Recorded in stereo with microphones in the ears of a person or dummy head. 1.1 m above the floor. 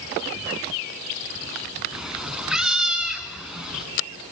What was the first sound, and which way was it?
A cat meowing, 5° right (ahead or behind).